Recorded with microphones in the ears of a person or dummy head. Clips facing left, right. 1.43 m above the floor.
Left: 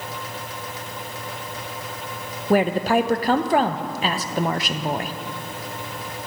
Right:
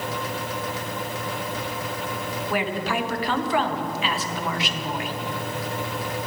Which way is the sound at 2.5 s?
40° left (ahead or behind).